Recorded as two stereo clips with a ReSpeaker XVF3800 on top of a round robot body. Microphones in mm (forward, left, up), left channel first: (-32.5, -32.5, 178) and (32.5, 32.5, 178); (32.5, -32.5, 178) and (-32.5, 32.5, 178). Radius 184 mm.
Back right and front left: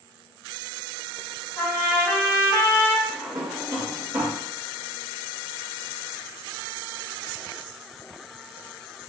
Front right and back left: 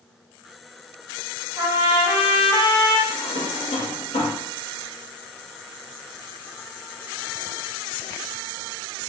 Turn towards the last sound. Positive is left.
turn(degrees=-25)